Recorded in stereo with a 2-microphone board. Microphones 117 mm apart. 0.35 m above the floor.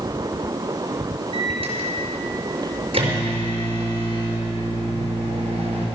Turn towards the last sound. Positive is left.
turn(degrees=-50)  # may be behind; listen again after turning